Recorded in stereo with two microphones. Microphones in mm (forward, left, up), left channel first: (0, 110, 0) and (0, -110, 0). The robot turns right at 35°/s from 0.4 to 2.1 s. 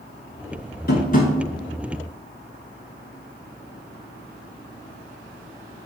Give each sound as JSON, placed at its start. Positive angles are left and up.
{"t": 0.9, "sound": "tapping", "side_deg": 45, "distance_m": 0.8}